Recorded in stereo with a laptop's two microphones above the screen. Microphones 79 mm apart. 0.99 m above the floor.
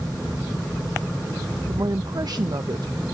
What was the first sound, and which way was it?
A woman speaking, 55° right (ahead or behind).